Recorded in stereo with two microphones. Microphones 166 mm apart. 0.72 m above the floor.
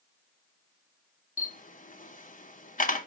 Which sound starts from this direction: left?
A camera shutter, at 1.4 s.